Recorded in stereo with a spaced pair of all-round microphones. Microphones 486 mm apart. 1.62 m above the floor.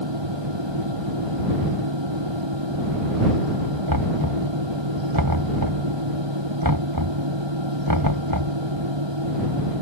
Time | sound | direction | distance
0.0 | a fan | 65° right (ahead or behind) | ?
3.9 | knocking | 45° right (ahead or behind) | ?